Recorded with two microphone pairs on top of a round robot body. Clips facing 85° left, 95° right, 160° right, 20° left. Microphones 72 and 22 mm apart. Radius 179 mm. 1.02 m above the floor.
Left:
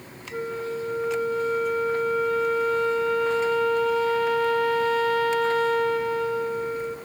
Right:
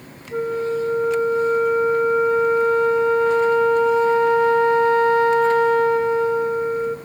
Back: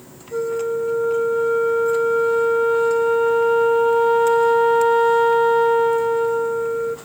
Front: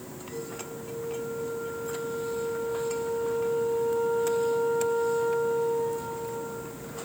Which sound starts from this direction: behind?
A flute, at 0.3 s.